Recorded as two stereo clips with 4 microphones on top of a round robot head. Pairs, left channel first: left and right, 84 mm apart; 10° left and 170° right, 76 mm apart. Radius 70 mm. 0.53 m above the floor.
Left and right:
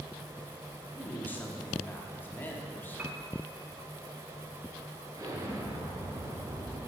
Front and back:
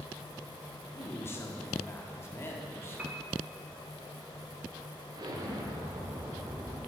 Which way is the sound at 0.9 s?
40° left.